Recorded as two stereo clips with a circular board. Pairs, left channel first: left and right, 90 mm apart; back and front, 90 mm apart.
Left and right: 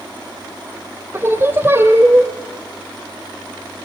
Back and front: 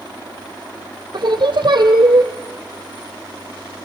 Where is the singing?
30° right, 1.9 m.